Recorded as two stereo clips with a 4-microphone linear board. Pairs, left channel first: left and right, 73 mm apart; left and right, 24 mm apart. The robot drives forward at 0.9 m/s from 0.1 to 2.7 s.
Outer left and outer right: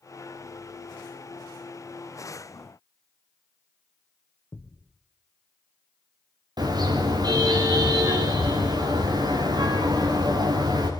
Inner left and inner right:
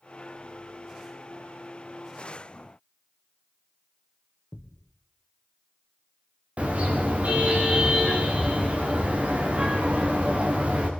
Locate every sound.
4.5 s a thud: 60° left (ahead or behind), 3 m
6.6 s a car horn: 70° right (ahead or behind), 7.5 m